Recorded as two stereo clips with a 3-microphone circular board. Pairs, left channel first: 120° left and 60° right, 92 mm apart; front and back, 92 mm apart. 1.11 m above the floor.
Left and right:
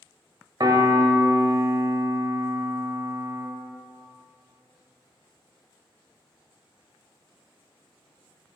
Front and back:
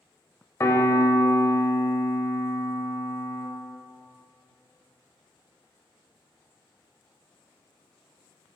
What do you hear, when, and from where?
0.6 s a piano: 45° right, 1.2 m